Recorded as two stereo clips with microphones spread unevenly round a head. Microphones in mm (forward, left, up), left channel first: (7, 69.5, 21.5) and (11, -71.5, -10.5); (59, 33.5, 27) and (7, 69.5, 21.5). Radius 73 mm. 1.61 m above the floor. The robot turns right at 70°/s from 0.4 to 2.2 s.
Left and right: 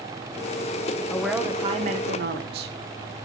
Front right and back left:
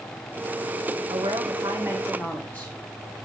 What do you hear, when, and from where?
1.1 s a woman speaking: 170° left, 1.1 m; by 2.8 s 115° right, 1.1 m